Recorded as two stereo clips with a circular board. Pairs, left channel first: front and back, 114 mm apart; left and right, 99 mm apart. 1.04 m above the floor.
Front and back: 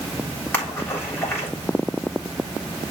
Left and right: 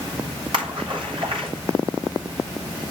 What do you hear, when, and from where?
0.5 s a splash: 70° right, 3.5 m